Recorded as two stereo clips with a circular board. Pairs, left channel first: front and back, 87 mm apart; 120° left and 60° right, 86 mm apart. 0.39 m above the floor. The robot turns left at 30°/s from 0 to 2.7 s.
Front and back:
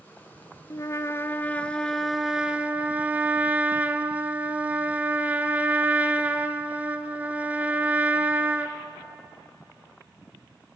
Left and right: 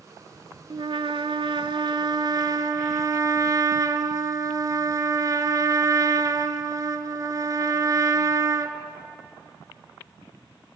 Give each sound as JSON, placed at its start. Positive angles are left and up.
{"t": 0.7, "sound": "a trumpet", "azimuth_deg": -50, "distance_m": 1.0}